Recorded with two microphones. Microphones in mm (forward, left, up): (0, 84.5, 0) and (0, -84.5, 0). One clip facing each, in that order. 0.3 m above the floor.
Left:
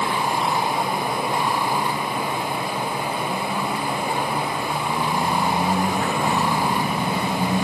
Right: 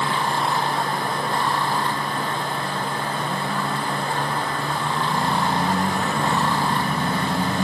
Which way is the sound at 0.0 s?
10° left (ahead or behind).